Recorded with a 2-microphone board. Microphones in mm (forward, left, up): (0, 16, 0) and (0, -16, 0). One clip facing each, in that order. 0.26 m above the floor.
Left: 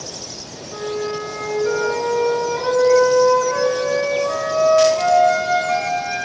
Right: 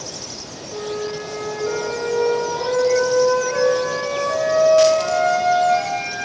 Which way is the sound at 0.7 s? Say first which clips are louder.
Left 2 dB; 35° left (ahead or behind).